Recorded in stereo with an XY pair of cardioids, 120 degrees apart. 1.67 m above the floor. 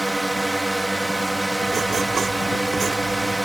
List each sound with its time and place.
0.0 s a drone: 10° right
1.7 s writing: 40° right